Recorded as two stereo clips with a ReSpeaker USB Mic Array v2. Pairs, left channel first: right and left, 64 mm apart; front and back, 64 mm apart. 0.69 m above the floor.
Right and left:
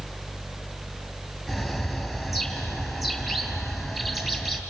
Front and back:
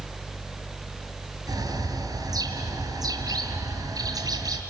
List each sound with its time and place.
1.5 s a bird: 175° left, 2.5 m